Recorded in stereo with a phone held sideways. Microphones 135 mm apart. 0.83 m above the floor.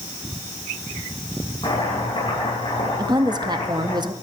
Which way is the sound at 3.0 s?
30° right (ahead or behind).